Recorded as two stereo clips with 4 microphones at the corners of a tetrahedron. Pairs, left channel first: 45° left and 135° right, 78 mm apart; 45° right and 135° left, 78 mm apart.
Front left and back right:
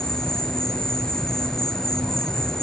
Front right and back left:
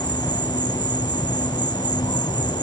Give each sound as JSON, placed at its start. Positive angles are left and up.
{"t": 0.0, "sound": "an insect", "azimuth_deg": -35, "distance_m": 0.7}